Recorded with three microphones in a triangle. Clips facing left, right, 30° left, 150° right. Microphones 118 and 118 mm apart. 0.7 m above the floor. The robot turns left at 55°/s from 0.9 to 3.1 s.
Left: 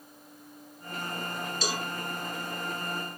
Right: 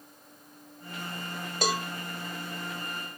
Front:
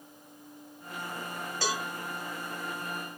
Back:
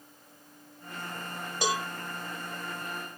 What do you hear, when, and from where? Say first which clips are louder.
1.6 s a cowbell: right 5 dB, back 3 dB; 80° right, 0.9 m; by 1.9 s 95° right, 0.9 m